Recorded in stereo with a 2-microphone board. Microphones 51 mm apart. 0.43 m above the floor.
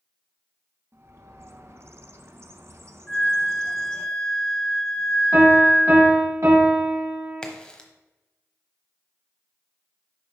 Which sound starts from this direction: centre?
A crack, at 7.4 s.